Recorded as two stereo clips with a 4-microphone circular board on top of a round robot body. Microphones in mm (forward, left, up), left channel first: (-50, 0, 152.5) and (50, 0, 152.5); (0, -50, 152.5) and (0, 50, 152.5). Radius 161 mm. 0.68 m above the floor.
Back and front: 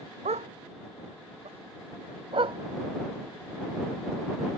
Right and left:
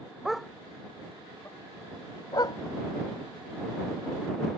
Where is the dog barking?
5° left; by 2.6 s 40° right.